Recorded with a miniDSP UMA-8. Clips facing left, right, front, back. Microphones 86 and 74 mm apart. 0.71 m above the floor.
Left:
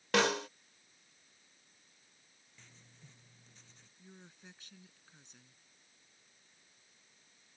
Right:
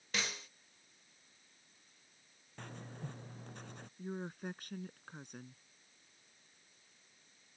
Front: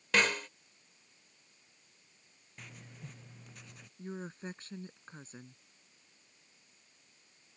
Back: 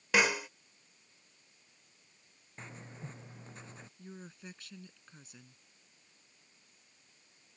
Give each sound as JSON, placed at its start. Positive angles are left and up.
{"t": 0.1, "sound": "a snare drum", "azimuth_deg": 100}
{"t": 2.6, "sound": "writing", "azimuth_deg": -120}
{"t": 4.0, "sound": "a woman speaking", "azimuth_deg": -55}